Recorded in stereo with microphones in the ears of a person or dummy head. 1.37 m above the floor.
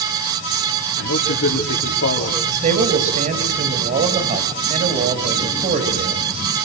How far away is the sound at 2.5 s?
About 6.5 m.